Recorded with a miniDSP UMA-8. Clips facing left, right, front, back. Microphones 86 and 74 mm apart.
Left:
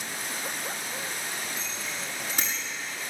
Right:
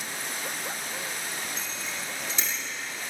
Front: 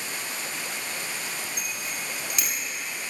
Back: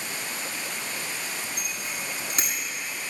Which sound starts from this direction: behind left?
A bicycle bell, at 1.6 s.